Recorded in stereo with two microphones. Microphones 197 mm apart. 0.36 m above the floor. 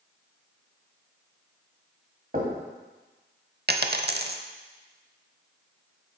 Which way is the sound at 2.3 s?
45° right (ahead or behind).